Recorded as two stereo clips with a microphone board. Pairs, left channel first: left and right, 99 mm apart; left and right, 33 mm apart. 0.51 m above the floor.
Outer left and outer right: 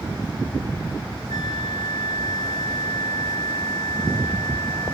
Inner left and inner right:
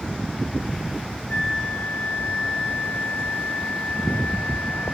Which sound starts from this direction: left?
A flute, at 1.3 s.